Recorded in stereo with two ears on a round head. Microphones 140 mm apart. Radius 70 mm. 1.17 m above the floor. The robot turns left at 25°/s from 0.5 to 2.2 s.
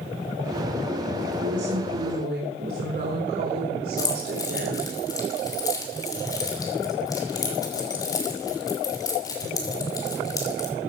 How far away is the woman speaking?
About 4 m.